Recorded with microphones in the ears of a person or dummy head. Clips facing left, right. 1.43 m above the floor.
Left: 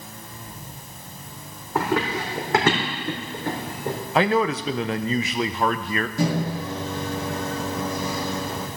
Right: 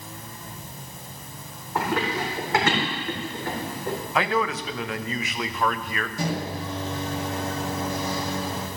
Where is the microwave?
70° left (ahead or behind), 1.9 m.